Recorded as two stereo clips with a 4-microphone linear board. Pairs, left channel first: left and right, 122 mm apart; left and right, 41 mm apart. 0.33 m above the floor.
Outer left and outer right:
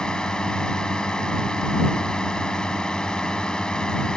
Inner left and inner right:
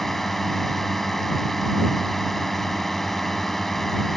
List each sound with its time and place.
0.0 s a drone: 5° left (ahead or behind)